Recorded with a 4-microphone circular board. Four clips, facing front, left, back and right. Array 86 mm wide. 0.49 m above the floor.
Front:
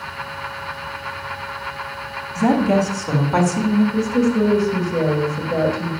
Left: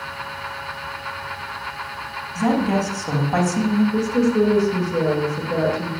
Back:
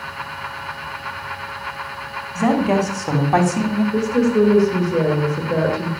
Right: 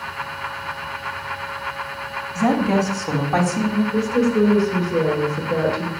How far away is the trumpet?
No trumpet in this recording.